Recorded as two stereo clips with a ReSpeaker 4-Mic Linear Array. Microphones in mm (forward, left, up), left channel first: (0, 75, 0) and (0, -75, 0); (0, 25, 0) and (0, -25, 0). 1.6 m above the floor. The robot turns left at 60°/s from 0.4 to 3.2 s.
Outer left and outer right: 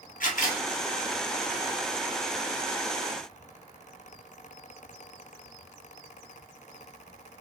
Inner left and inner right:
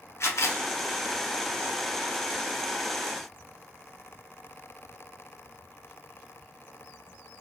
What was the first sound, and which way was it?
A camera shutter, 65° left (ahead or behind).